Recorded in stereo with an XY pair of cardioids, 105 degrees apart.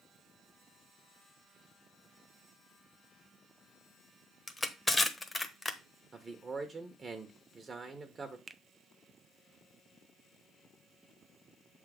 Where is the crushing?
20° left, 1.0 m.